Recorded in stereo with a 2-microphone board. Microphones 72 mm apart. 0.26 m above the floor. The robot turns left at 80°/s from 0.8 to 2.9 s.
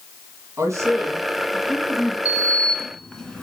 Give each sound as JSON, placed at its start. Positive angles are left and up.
{"t": 0.6, "sound": "a man speaking", "azimuth_deg": -125, "distance_m": 2.5}
{"t": 2.2, "sound": "a sliding door", "azimuth_deg": 60, "distance_m": 1.4}